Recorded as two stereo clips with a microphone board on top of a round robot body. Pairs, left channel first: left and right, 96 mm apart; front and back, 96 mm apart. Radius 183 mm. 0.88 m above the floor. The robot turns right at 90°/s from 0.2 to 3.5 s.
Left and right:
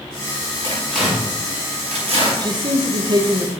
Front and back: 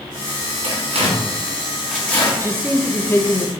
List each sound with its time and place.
0.6 s tearing paper: 150° left, 5.5 m; by 2.3 s 60° right, 5.5 m
2.4 s a man speaking: 130° right, 1.6 m; by 3.5 s 30° right, 1.6 m